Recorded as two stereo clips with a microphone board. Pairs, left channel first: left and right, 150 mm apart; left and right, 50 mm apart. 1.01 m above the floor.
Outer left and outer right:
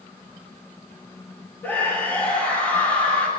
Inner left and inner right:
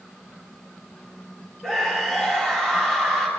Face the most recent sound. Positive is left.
turn(degrees=15)  # may be behind; listen again after turning